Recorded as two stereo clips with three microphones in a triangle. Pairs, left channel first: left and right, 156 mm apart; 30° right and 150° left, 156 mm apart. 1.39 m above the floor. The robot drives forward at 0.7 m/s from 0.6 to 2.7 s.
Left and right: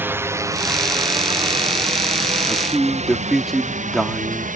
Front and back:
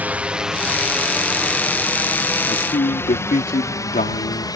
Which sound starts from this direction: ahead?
A man speaking, at 2.5 s.